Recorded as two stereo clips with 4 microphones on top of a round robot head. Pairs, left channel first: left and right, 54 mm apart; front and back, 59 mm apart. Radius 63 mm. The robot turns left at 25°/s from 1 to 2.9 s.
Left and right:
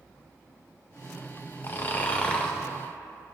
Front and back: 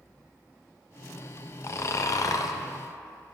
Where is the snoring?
40° left, 0.6 m; by 2.5 s 15° left, 0.6 m.